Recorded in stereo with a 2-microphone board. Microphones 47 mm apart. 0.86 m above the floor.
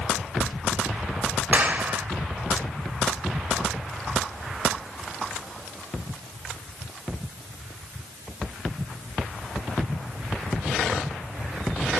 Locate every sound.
1.5 s a clap: 30° right (ahead or behind), 3.5 m